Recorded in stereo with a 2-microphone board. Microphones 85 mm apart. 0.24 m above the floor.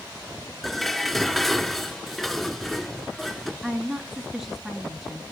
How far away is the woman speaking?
About 2 m.